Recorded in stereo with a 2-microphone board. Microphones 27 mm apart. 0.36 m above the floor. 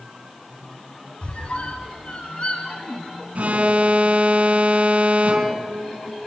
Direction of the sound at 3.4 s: 55° right (ahead or behind).